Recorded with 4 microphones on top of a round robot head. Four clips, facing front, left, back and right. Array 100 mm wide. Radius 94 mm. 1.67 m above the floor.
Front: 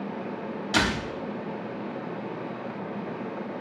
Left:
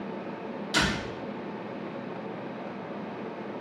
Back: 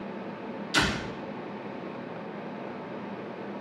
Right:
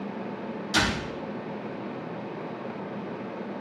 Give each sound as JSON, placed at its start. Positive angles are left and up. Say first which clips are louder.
{"t": 0.7, "sound": "a door slam", "louder": "right 1 dB, front 2 dB", "azimuth_deg": -10, "distance_m": 3.5}